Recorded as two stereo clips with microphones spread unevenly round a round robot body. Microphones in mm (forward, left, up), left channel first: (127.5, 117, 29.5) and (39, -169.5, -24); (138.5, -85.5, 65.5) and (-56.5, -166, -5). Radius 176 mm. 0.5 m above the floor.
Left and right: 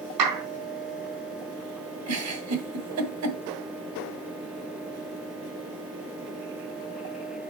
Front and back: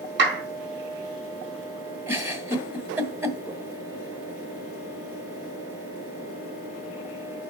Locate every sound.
0.2 s a clap: 140° right, 3.5 m
2.1 s a giggle: 85° right, 1.6 m